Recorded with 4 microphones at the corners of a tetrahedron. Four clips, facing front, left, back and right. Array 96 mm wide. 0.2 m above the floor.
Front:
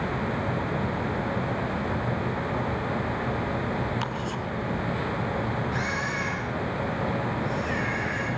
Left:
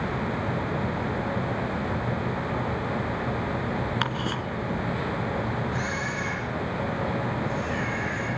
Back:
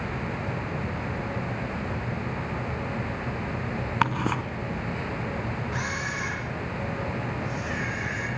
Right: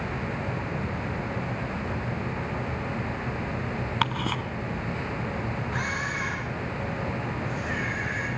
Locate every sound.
4.0 s ticking: 175° right, 2 m
5.7 s a camera shutter: 125° right, 10 m